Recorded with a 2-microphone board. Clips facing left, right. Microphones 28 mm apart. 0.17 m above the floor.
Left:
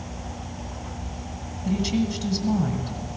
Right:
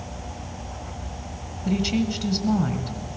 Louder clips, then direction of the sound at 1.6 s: Right 1 dB; 10° right (ahead or behind).